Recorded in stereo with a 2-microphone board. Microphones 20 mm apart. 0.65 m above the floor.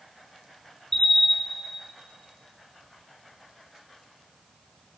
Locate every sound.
0.9 s a bell: 25° left (ahead or behind), 1.2 m